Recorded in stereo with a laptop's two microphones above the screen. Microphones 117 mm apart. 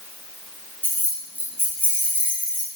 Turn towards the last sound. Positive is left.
turn(degrees=-20)  # may be behind; listen again after turning